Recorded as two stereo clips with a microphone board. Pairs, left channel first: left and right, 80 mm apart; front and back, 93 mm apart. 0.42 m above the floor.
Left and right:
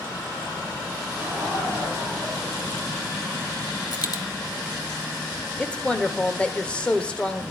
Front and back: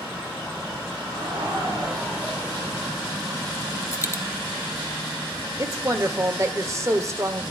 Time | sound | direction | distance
1.1 | laughter | 160° right | 7.5 m
3.9 | a dropped coin | 55° left | 0.7 m
5.6 | a woman speaking | 155° left | 0.9 m